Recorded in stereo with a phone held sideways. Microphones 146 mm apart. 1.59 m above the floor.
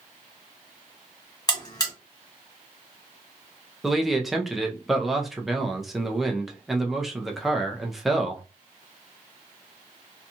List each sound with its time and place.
1.5 s a buzzer: 30° left (ahead or behind), 1.7 m
3.8 s a man speaking: centre (ahead or behind), 0.6 m